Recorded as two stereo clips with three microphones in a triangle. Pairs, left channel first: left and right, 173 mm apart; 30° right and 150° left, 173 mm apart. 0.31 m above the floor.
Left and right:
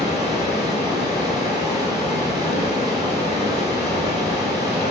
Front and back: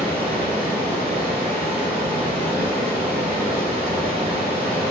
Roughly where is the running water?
Behind left.